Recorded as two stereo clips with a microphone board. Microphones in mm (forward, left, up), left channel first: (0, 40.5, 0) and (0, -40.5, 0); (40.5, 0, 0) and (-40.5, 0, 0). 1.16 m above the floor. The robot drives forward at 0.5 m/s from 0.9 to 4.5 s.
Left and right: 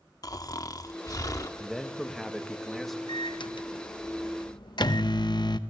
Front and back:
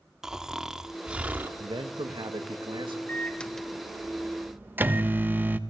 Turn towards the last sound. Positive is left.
turn(degrees=115)